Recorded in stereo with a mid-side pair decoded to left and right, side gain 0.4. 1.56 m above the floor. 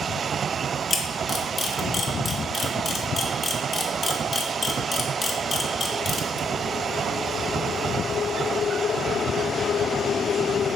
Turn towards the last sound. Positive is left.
turn(degrees=45)